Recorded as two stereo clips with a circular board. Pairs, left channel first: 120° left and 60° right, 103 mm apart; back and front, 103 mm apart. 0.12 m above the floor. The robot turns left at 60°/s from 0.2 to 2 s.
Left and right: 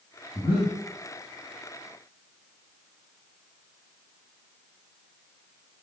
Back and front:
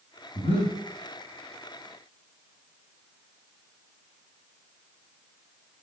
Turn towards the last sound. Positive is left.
turn(degrees=60)